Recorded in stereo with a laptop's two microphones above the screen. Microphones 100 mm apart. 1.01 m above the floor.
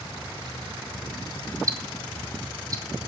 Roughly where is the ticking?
Right.